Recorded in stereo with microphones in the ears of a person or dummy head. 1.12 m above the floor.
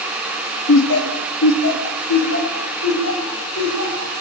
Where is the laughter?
65° left (ahead or behind), 1.2 m; by 4.1 s 75° left (ahead or behind), 5.5 m.